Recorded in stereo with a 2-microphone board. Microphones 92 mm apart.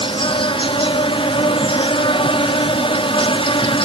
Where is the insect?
70° left (ahead or behind), 1.0 m.